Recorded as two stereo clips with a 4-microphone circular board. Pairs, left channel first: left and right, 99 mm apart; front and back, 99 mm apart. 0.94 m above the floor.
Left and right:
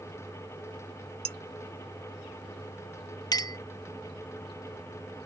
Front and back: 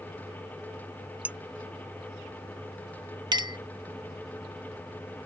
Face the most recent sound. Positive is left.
turn(degrees=135)